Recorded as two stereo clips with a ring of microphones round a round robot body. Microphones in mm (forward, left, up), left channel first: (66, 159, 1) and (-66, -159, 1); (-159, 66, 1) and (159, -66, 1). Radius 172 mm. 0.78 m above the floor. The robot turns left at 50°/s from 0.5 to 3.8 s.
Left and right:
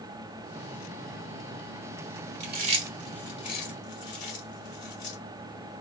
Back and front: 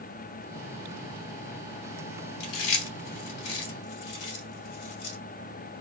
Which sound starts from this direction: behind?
Chewing, at 2.4 s.